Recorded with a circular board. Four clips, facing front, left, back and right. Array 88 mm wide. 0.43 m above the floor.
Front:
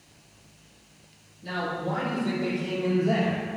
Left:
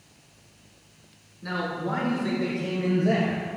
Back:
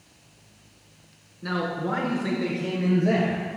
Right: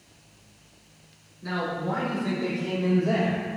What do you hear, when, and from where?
1.4 s a man speaking: 170° left, 4 m; by 3.4 s 150° left, 6.5 m